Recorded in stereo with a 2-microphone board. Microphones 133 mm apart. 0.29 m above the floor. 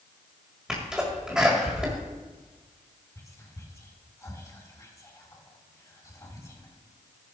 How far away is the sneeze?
About 1.6 m.